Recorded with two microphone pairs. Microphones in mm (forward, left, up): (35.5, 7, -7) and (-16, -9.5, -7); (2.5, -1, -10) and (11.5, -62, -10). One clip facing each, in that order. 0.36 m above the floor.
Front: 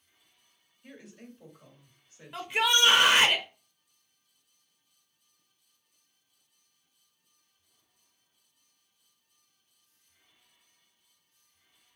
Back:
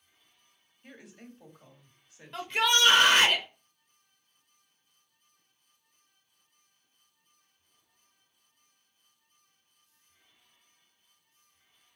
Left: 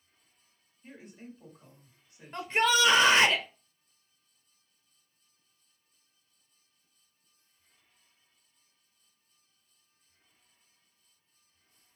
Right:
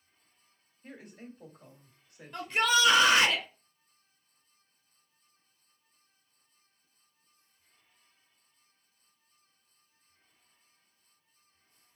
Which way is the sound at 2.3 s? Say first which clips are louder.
Even, left 1 dB; 80° left.